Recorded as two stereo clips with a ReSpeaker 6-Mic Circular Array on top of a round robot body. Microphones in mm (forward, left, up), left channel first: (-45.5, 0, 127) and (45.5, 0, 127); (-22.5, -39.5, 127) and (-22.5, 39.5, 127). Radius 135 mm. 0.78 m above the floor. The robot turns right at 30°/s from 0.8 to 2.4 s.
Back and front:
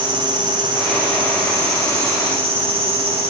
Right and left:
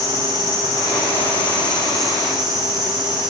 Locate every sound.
0.0 s an insect: 40° right, 7.5 m; by 3.3 s 10° left, 7.5 m